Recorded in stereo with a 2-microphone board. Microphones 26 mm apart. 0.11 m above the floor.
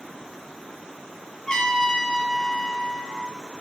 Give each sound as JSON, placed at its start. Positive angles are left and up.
{"t": 1.5, "sound": "a trumpet", "side_deg": 30, "distance_m": 0.7}